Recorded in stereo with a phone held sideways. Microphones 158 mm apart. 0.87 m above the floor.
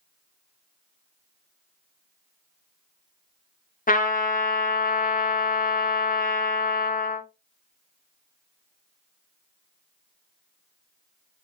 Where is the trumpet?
60° left (ahead or behind), 0.6 m.